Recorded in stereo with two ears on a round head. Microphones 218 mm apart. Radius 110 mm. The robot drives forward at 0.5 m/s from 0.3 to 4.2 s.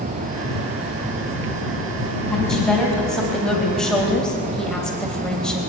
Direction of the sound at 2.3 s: Centre (ahead or behind).